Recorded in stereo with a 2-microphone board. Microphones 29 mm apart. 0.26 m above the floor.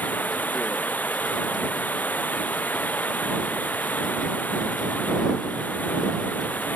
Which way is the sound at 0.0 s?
80° left.